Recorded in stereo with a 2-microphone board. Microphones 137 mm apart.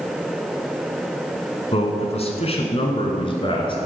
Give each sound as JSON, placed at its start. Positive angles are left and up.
{"t": 1.7, "sound": "a man speaking", "side_deg": 50, "distance_m": 1.7}